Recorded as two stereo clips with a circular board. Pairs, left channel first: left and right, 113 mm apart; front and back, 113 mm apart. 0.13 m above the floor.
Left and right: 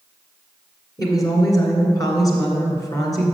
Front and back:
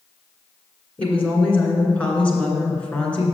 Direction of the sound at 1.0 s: 70° left.